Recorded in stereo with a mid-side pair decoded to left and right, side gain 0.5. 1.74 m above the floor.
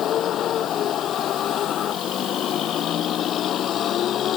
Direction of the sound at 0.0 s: 60° left.